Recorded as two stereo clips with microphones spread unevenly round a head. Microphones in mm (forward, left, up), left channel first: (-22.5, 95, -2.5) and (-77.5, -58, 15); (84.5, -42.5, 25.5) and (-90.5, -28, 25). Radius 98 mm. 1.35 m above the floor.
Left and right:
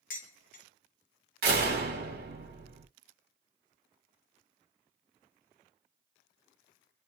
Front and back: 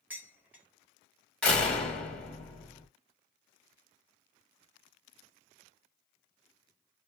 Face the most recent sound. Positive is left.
turn(degrees=-90)